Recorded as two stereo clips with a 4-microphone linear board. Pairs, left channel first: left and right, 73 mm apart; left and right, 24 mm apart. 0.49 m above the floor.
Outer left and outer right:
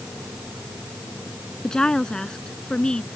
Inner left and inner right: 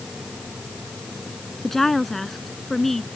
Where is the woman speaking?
10° left (ahead or behind).